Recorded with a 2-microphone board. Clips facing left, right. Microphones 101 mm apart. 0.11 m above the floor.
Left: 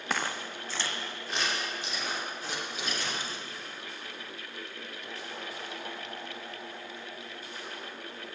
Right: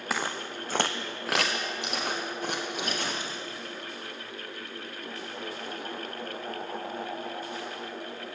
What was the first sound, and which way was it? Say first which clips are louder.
Footsteps: right 1 dB; 5° right (ahead or behind).